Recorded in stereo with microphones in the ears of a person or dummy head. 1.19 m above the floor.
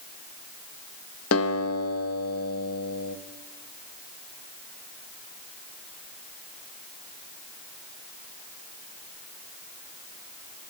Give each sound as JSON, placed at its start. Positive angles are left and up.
{"t": 1.3, "sound": "a guitar", "side_deg": 80, "distance_m": 1.3}